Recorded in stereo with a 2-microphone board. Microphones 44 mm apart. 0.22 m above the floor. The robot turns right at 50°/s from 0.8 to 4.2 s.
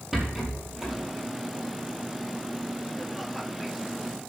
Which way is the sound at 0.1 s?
5° right (ahead or behind).